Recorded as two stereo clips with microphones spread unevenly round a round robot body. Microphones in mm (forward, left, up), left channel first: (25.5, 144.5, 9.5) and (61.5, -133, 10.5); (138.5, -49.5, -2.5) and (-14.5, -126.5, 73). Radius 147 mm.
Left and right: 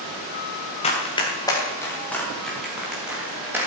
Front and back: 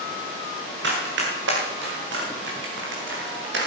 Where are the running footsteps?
170° left, 3 m; by 3.7 s 165° right, 4.5 m.